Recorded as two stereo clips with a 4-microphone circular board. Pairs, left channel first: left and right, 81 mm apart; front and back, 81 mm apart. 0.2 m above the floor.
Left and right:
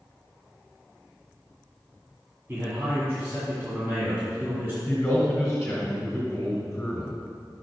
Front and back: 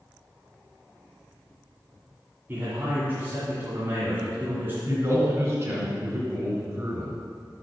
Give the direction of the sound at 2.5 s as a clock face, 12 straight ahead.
4 o'clock.